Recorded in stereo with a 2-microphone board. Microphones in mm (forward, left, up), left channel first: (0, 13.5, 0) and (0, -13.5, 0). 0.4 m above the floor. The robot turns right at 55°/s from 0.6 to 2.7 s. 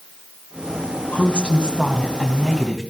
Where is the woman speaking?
110° left, 3 m; by 2.8 s 165° right, 3 m.